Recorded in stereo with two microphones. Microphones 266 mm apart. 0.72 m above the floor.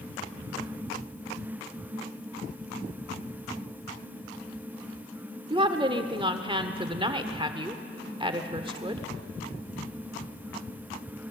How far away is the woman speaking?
About 1.6 m.